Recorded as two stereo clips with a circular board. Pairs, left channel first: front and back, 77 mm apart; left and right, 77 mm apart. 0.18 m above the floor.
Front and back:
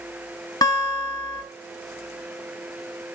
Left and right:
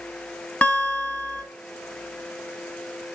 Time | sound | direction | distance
0.6 | a guitar | 20° left | 1.3 m